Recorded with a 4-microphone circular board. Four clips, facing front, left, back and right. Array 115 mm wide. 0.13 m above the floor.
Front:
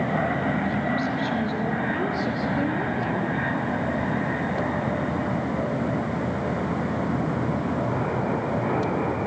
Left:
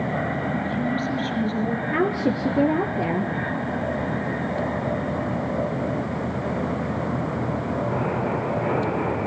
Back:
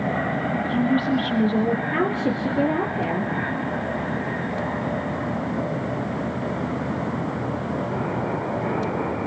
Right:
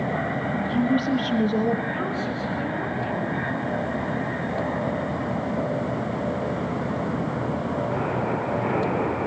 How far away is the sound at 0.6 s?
About 4 m.